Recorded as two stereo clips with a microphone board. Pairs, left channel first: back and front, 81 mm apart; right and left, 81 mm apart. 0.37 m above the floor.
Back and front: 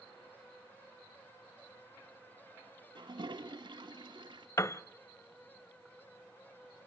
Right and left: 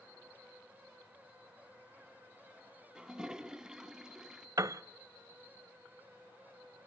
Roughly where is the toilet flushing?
Ahead.